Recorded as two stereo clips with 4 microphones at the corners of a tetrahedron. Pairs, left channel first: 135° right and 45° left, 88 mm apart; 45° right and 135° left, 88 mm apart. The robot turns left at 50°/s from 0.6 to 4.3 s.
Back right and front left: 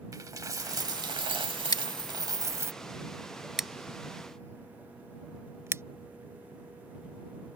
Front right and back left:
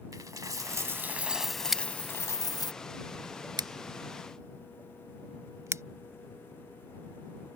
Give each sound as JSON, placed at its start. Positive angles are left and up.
{"t": 0.1, "sound": "a dropped coin", "azimuth_deg": 90}
{"t": 1.7, "sound": "scissors", "azimuth_deg": -135}